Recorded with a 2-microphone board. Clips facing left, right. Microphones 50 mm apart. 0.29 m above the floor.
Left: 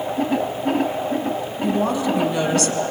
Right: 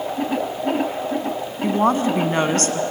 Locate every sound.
1.6 s a woman speaking: 45° right (ahead or behind), 2 m